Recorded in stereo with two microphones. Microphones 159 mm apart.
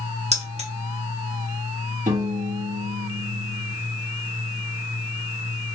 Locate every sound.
0.3 s keys jangling: 45° right (ahead or behind), 0.9 m
2.1 s a piano: 55° right (ahead or behind), 1.2 m